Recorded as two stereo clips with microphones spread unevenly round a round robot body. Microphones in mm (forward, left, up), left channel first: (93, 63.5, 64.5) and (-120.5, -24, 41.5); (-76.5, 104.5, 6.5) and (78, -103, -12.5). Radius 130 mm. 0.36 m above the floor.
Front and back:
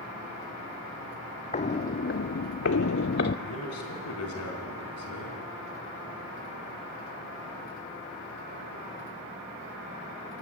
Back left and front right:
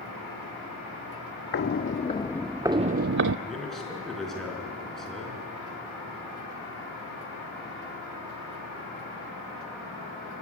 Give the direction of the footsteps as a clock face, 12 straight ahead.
9 o'clock.